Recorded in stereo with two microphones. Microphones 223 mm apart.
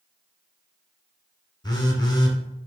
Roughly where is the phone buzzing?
Centre.